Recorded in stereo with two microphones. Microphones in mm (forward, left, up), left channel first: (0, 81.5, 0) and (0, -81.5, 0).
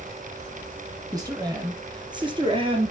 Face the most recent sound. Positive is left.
turn(degrees=-35)  # may be behind; listen again after turning